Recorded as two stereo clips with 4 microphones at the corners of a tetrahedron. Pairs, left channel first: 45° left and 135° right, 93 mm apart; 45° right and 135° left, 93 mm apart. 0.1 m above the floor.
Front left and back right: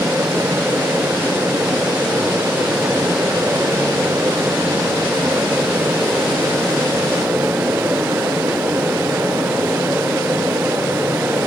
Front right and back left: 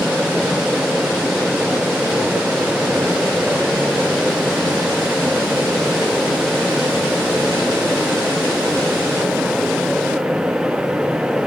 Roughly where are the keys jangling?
I don't hear keys jangling.